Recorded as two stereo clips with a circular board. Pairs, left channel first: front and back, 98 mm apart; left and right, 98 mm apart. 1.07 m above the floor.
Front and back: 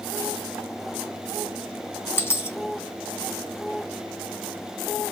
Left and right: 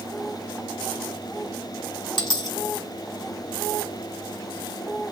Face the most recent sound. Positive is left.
turn(degrees=60)